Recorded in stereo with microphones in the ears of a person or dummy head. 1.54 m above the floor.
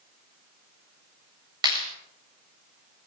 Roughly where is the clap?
Right.